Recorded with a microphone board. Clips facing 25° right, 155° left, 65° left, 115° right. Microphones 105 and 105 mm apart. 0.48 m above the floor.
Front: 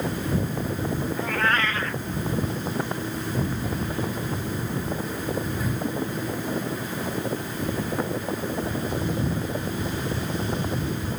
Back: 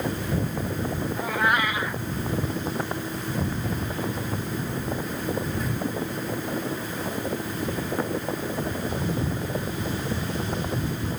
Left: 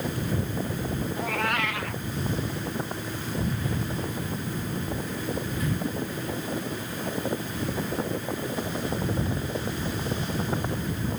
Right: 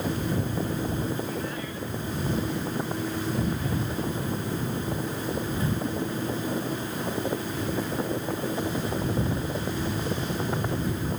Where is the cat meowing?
80° left.